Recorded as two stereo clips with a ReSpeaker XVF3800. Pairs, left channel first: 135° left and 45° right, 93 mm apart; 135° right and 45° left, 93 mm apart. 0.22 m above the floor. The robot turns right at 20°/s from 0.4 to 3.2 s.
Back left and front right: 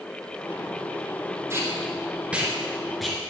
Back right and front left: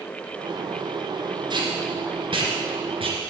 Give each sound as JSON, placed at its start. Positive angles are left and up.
{"t": 1.5, "sound": "tape being pulled", "azimuth_deg": 15, "distance_m": 2.5}